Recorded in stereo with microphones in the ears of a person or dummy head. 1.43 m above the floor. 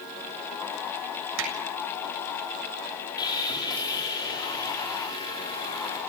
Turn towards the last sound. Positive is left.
turn(degrees=30)  # may be behind; listen again after turning